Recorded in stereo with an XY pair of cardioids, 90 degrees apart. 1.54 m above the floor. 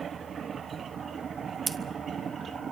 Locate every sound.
1.7 s scissors: 40° right, 1.1 m